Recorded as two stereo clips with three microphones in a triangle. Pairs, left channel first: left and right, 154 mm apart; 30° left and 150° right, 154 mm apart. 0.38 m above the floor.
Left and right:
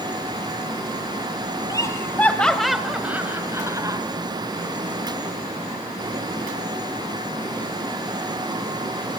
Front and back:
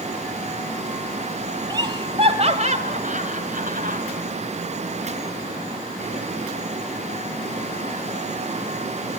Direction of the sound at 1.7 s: 155° left.